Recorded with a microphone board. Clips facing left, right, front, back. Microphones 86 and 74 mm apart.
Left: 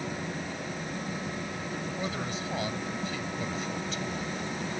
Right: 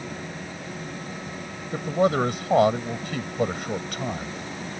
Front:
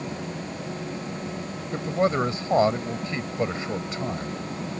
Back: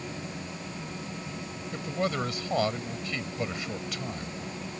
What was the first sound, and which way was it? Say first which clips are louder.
A man speaking: right 15 dB, front 7 dB; 60° right.